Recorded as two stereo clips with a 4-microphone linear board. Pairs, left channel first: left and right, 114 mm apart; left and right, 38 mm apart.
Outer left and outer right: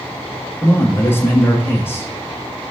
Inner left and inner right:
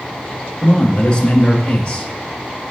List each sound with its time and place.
0.6 s a man speaking: 20° left (ahead or behind), 1.9 m